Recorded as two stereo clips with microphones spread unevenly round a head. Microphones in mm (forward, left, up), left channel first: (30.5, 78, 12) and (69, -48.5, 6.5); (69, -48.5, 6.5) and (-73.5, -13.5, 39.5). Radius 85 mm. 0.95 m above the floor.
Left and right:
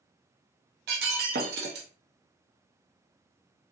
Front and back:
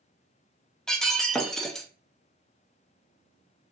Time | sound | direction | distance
0.9 | breaking glass | 100° right | 0.7 m